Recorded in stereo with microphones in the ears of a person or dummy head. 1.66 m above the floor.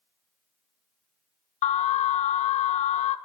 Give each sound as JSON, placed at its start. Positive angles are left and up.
{"t": 1.6, "sound": "an alarm", "side_deg": 35, "distance_m": 0.6}